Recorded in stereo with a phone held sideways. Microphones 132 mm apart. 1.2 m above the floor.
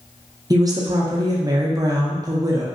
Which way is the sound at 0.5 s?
30° right (ahead or behind).